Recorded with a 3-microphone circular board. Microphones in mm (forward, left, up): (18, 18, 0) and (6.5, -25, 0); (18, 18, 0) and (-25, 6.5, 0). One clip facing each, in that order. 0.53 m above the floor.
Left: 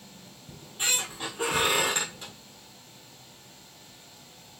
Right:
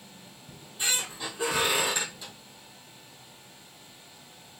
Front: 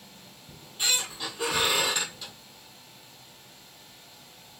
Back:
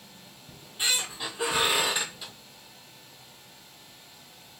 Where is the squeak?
120° left, 1.5 m.